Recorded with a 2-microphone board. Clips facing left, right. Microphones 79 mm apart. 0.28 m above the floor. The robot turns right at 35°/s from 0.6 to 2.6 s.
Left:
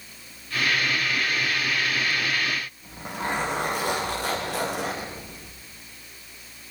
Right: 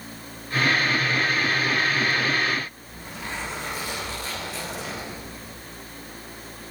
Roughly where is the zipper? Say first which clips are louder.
Left 6 dB; left.